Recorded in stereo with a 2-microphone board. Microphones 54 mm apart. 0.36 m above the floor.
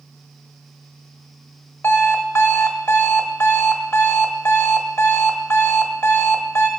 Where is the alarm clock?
50° left (ahead or behind), 1.0 m.